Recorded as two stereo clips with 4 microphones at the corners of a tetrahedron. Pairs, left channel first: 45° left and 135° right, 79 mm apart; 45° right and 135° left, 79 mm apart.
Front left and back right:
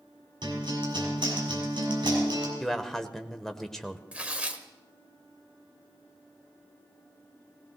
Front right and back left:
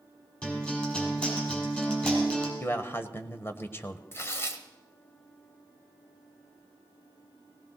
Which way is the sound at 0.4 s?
120° right.